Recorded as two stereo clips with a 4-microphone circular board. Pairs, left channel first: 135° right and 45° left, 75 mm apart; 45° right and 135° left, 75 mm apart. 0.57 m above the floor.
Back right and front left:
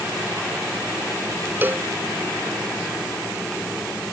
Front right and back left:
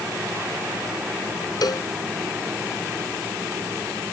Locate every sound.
1.6 s a cowbell: 20° right